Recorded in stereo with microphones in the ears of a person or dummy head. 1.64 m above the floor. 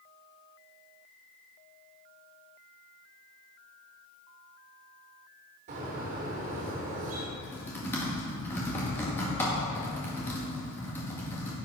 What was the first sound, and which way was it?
A bird, 40° right (ahead or behind).